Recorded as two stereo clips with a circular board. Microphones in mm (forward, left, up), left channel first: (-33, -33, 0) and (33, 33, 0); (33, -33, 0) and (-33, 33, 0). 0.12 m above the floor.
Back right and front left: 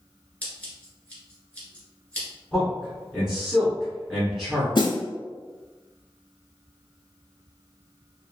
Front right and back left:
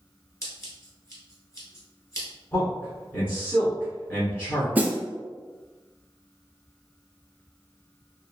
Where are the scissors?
70° right, 1.3 m.